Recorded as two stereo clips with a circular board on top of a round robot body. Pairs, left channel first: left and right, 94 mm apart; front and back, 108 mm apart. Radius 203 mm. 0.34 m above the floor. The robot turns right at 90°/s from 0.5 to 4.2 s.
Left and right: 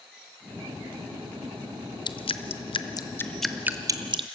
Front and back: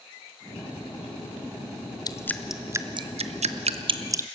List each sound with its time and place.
2.1 s dripping: 55° left, 0.8 m; by 4.2 s 115° right, 0.8 m